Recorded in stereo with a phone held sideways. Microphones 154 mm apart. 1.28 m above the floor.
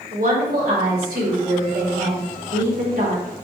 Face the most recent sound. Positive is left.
turn(degrees=-70)  # may be behind; listen again after turning